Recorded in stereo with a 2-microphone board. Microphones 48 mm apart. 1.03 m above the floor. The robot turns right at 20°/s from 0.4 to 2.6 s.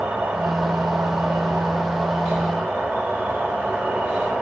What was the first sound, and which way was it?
An insect, 25° right (ahead or behind).